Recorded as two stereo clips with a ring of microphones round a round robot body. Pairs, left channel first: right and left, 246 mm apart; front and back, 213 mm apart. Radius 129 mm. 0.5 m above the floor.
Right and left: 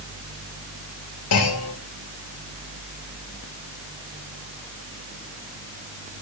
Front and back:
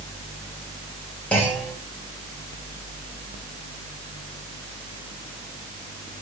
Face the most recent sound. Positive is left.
turn(degrees=-85)